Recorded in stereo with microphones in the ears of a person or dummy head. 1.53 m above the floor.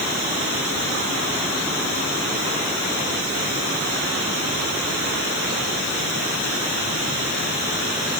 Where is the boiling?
I don't hear boiling.